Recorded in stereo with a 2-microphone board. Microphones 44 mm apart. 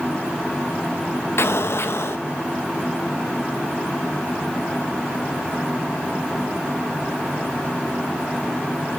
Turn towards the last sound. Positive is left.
turn(degrees=70)  # may be behind; listen again after turning